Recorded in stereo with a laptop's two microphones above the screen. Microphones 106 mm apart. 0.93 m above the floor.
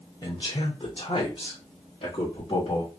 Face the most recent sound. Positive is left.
turn(degrees=55)  # may be behind; listen again after turning